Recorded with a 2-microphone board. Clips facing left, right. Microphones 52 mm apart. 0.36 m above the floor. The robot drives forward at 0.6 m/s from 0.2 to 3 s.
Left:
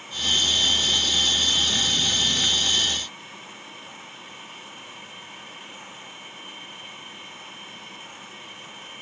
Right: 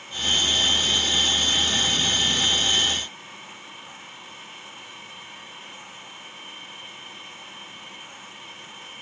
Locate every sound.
Only background noise.